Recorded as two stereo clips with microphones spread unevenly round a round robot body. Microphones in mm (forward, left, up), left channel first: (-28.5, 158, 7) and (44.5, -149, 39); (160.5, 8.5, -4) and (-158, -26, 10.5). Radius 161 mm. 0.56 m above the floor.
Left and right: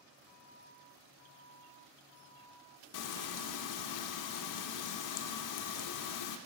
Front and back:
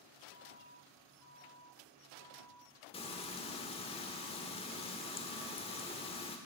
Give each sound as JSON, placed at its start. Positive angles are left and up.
{"t": 2.9, "sound": "frying", "azimuth_deg": 80, "distance_m": 0.7}